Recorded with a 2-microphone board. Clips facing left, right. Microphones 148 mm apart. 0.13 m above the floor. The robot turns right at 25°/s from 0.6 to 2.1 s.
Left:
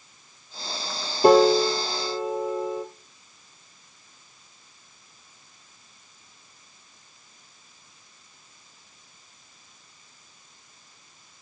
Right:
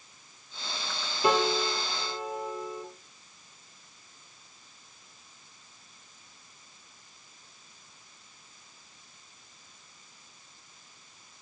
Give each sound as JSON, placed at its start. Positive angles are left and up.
{"t": 1.2, "sound": "a piano", "side_deg": 50, "distance_m": 1.0}